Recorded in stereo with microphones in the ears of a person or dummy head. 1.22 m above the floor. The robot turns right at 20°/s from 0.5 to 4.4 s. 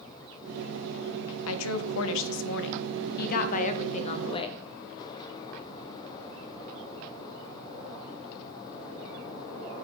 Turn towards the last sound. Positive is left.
turn(degrees=150)